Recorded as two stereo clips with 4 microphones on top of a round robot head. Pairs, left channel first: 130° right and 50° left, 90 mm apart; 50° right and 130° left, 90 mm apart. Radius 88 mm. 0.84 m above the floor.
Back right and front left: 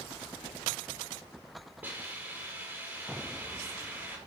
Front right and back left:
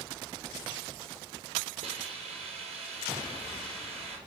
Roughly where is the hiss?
Behind left.